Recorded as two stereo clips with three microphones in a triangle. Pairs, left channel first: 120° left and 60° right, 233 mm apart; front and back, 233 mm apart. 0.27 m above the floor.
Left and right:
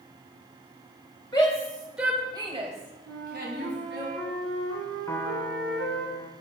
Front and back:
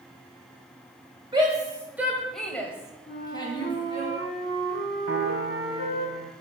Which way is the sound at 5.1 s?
165° right.